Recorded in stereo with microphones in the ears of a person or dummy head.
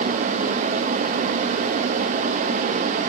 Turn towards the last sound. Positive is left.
No sound to turn to.